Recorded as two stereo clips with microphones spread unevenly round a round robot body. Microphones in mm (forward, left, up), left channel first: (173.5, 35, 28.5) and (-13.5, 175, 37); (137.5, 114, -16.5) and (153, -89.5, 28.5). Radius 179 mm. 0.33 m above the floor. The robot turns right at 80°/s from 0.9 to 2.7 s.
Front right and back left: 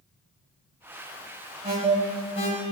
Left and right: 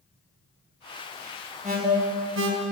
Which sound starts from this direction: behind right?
An alarm, at 1.6 s.